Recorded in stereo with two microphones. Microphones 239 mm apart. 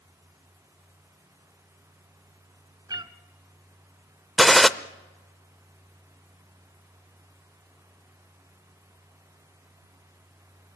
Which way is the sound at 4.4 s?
Centre (ahead or behind).